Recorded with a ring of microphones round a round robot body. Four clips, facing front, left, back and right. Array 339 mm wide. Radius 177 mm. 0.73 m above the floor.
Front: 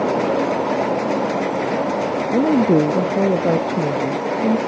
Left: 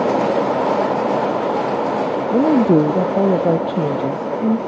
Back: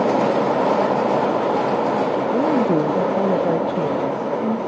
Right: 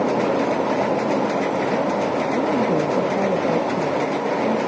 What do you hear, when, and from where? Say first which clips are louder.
2.3 s a woman speaking: left 10 dB, front 5 dB; 60° left